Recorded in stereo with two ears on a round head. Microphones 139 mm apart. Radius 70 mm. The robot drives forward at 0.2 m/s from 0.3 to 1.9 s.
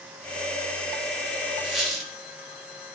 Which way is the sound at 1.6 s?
Centre (ahead or behind).